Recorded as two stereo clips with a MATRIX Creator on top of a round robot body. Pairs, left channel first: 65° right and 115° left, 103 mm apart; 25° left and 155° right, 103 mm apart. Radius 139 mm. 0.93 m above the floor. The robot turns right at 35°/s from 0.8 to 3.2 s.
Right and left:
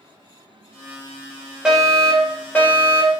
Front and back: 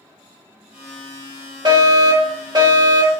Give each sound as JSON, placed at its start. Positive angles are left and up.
{"t": 1.6, "sound": "a fire alarm", "azimuth_deg": -170, "distance_m": 2.0}